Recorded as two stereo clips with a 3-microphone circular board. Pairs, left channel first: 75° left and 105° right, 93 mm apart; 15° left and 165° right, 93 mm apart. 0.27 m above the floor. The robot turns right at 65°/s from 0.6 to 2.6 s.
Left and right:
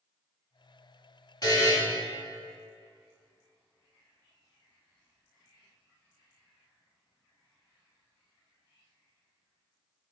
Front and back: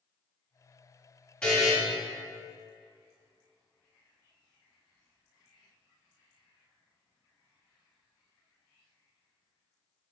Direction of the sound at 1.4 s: 90° left.